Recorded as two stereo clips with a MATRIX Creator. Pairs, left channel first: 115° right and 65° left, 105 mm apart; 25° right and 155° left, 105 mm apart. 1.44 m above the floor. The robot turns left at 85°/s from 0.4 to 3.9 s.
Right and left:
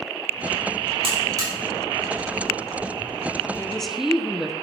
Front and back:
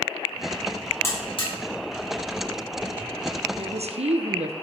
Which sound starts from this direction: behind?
A woman speaking, at 3.6 s.